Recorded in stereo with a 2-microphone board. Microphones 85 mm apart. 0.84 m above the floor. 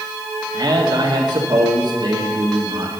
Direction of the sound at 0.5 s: 55° right (ahead or behind).